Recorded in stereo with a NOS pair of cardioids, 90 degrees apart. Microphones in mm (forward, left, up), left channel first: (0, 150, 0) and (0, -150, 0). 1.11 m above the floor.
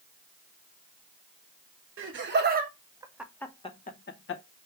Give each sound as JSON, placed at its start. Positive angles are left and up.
{"t": 2.0, "sound": "laughter", "azimuth_deg": -45, "distance_m": 1.3}